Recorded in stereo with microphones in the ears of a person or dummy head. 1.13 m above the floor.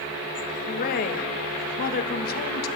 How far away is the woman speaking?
About 1.1 m.